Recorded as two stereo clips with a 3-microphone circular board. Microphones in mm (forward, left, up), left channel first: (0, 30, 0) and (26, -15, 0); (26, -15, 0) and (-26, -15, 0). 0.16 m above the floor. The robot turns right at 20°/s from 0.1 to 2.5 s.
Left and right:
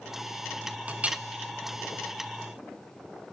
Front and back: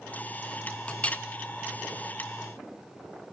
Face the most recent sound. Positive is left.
turn(degrees=-10)